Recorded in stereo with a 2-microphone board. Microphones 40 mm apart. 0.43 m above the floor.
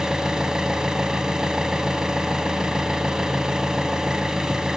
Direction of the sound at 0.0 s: 15° right (ahead or behind).